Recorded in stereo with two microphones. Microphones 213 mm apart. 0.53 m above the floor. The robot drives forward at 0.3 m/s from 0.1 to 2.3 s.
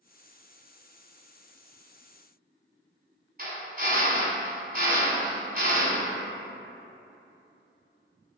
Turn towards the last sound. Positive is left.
turn(degrees=-45)  # may be behind; listen again after turning